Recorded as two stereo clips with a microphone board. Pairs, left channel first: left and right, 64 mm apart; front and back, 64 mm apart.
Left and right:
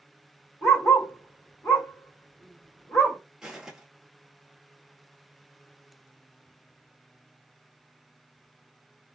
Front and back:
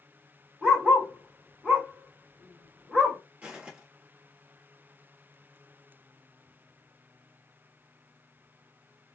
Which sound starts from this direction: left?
A dog barking, at 0.6 s.